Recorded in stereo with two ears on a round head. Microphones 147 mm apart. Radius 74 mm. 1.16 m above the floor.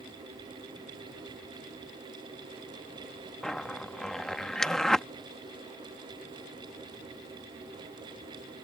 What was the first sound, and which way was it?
A zipper, 5° left (ahead or behind).